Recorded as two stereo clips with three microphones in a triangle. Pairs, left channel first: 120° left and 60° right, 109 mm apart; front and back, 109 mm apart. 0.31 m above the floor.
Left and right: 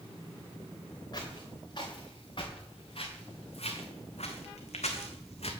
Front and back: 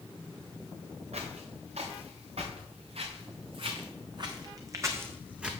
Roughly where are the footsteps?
Behind.